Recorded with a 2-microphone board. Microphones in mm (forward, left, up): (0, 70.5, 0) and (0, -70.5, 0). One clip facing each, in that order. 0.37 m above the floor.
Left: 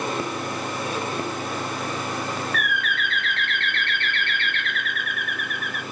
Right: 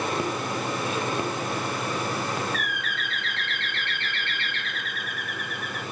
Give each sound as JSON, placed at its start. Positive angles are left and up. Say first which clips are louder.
{"t": 2.5, "sound": "a bird", "louder": "left 4 dB", "side_deg": 60, "distance_m": 0.6}